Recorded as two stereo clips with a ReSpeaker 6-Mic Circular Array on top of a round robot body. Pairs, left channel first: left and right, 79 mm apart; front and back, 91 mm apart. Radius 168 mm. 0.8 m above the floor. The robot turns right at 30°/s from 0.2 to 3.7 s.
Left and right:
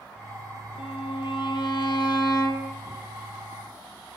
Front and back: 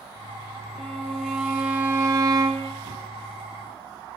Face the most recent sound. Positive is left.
turn(degrees=170)